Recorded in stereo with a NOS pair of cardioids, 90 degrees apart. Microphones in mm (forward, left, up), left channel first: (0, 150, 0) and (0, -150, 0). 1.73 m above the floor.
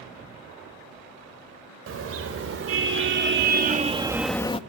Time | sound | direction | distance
1.9 | a car horn | 50° right | 4 m